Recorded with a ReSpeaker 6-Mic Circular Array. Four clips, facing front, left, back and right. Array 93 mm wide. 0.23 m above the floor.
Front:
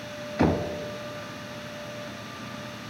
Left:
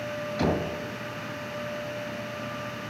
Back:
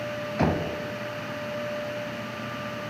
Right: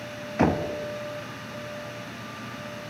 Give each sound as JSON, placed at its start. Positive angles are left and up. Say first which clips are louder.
{"t": 0.4, "sound": "knocking", "louder": "right 4 dB, front 2 dB", "azimuth_deg": -95, "distance_m": 0.8}